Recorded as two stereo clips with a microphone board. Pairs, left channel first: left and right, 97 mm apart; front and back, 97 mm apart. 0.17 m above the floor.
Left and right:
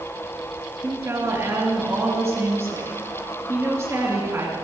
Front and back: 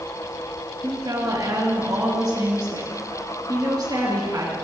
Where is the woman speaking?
145° right, 3 m.